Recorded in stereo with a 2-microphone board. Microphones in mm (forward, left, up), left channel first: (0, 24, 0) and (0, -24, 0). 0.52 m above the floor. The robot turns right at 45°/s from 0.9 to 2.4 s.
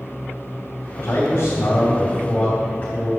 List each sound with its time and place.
1.0 s a man speaking: 90° left, 2.5 m; by 3.1 s 155° left, 2.5 m